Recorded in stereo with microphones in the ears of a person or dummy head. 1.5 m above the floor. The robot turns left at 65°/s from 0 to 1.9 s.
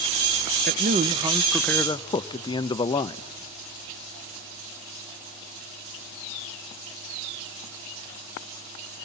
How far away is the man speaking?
About 0.6 m.